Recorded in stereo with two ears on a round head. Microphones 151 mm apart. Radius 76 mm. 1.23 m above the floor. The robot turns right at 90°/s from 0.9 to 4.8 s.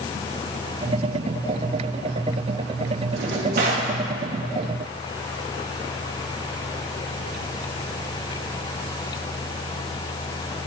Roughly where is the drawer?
Right.